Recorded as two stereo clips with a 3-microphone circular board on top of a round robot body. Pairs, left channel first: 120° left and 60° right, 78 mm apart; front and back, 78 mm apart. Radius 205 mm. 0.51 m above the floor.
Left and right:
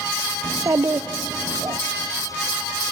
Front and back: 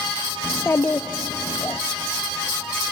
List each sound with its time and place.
0.4 s a child speaking: 45° right, 0.7 m